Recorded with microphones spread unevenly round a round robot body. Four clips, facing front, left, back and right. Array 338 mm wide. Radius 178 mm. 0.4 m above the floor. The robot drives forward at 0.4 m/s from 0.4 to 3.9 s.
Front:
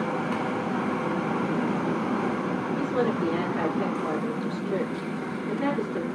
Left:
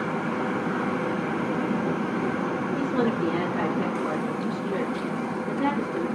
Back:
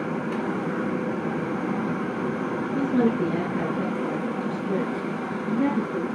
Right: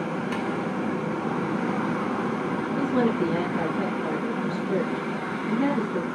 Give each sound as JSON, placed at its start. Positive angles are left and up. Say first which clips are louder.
{"t": 2.7, "sound": "a woman speaking", "louder": "right 3 dB, back 5 dB", "azimuth_deg": -155, "distance_m": 4.5}